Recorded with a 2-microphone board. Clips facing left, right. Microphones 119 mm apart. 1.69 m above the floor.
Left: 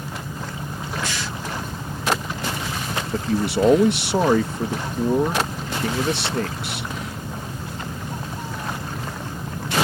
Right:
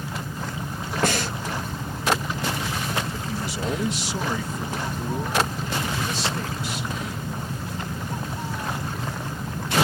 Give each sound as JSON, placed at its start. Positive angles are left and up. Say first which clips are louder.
{"t": 1.0, "sound": "breathing", "louder": "right 5 dB", "side_deg": -55}
{"t": 3.1, "sound": "a man speaking", "louder": "left 9 dB", "side_deg": 70}